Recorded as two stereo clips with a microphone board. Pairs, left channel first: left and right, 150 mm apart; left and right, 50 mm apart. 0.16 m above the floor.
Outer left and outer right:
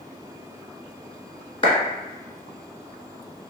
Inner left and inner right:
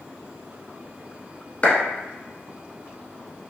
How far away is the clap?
About 1.2 m.